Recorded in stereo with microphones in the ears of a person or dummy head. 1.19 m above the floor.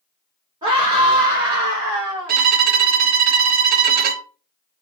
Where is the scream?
20° right (ahead or behind), 1.4 m; by 2.4 s 15° right (ahead or behind), 2.5 m.